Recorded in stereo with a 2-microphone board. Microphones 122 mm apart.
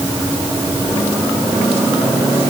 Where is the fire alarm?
No fire alarm in this recording.